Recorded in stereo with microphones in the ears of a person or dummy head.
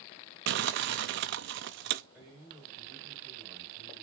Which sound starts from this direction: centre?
A man speaking, at 2.1 s.